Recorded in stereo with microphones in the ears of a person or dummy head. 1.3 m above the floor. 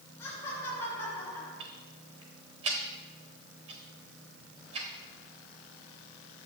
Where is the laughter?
15° left (ahead or behind), 6 m.